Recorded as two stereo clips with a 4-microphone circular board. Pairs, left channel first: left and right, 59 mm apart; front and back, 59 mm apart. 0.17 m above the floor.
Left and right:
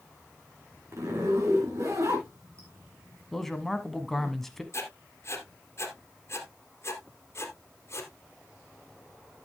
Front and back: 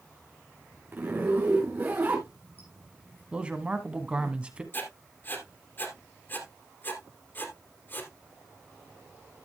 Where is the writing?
50° left, 2.5 m.